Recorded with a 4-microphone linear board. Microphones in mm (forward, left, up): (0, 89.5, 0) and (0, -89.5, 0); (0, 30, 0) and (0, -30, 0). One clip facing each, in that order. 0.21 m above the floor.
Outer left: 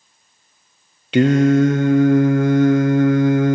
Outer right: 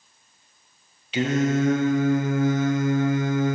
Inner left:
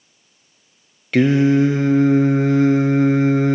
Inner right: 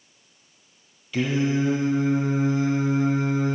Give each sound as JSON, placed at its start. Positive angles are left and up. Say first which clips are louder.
{"t": 1.1, "sound": "singing", "louder": "outer left 9 dB, inner left 9 dB", "side_deg": 75, "distance_m": 1.1}